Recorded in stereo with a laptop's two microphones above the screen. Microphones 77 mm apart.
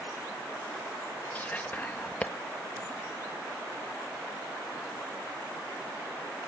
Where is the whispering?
20° left (ahead or behind).